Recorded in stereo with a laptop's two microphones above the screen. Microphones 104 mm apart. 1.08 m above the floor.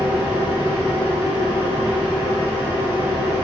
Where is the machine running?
40° right (ahead or behind), 3 m.